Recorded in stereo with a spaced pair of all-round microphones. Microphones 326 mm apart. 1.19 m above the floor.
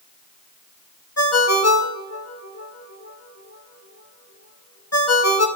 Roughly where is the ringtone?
Left.